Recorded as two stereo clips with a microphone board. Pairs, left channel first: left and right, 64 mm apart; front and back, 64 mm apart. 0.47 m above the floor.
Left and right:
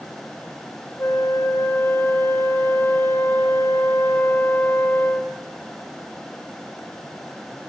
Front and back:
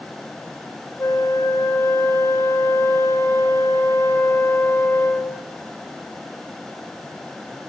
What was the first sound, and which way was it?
A flute, 40° left.